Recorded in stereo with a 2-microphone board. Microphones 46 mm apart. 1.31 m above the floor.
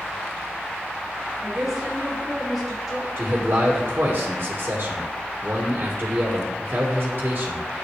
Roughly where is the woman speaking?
Centre.